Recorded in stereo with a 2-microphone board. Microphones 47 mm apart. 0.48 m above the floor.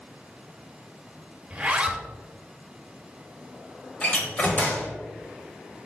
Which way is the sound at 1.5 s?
20° right (ahead or behind).